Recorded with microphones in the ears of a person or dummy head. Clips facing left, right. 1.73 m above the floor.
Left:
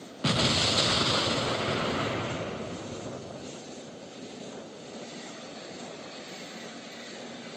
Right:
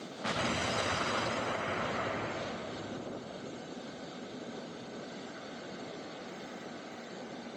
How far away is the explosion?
About 0.5 m.